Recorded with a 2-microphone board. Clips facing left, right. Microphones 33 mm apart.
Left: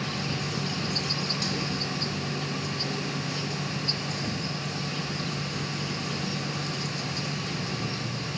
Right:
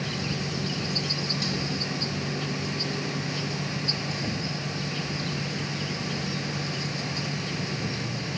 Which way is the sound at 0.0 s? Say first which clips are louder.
Even; 20° right (ahead or behind).